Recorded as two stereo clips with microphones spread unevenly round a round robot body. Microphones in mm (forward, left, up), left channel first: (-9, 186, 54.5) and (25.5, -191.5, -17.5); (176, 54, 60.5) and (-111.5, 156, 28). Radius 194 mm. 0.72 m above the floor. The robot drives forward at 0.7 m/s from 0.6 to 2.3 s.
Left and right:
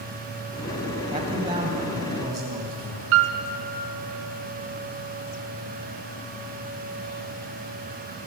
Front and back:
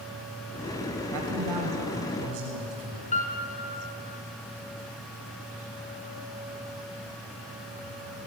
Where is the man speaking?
160° right, 3 m; by 3.0 s 165° right, 4 m.